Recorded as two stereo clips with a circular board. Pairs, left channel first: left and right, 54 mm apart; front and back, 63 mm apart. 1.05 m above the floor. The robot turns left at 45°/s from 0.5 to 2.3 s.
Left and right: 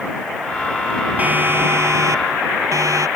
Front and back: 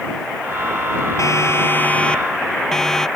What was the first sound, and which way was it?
A siren, 30° right.